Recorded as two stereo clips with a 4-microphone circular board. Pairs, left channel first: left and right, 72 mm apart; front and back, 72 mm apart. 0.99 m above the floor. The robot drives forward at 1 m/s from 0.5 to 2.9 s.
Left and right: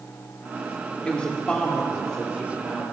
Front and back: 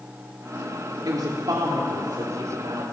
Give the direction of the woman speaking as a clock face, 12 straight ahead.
7 o'clock.